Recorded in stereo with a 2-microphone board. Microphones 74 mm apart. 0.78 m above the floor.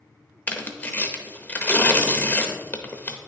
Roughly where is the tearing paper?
Left.